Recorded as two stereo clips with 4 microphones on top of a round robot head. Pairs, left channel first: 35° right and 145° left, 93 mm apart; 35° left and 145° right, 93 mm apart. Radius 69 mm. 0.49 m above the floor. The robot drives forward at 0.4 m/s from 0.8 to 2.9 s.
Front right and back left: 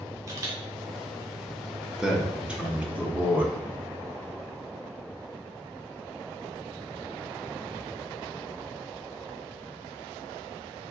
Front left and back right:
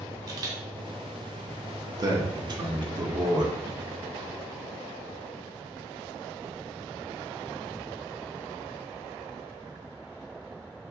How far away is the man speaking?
About 1.3 m.